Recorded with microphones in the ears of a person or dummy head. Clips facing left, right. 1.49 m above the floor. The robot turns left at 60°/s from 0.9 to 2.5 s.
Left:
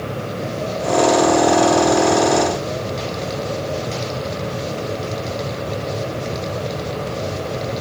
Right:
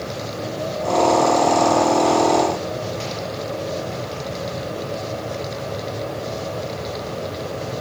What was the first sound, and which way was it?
Only background noise.